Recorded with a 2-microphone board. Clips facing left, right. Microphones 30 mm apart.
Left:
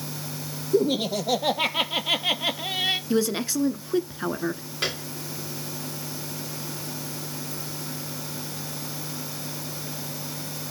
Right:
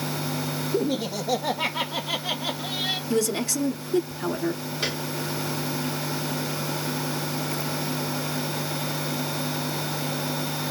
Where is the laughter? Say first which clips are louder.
Left 5 dB; 55° left (ahead or behind), 3.5 m; by 3.0 s 60° left (ahead or behind), 1.9 m.